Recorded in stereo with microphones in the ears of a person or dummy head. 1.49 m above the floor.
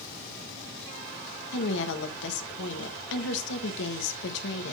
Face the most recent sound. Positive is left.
turn(degrees=65)  # may be behind; listen again after turning